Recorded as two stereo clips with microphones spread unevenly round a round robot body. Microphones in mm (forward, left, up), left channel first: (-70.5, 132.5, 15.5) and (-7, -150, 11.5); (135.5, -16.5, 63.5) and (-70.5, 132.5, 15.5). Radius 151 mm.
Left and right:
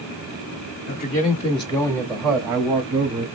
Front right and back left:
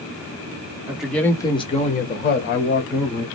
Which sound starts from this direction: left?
A man speaking, at 0.9 s.